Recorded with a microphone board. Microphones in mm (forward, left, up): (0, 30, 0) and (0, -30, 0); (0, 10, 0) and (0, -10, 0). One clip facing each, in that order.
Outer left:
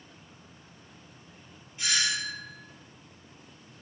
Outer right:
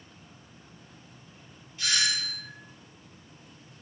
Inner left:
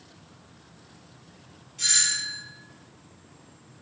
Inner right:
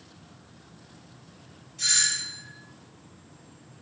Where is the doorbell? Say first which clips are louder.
Even, inner left 1 dB; 20° left (ahead or behind), 1.6 m.